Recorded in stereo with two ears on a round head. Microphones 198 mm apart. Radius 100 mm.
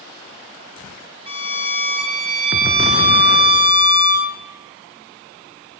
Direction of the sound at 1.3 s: 25° right (ahead or behind).